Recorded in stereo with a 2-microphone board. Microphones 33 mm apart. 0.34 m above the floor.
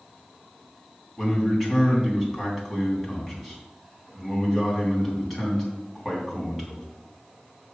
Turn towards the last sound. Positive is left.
turn(degrees=0)  # may be behind; listen again after turning